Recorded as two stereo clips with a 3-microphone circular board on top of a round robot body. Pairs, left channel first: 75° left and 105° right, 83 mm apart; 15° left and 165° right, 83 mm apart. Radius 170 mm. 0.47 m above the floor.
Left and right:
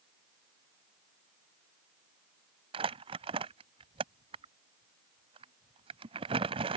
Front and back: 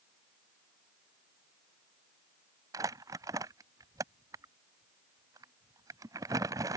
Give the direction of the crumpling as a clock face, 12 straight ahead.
4 o'clock.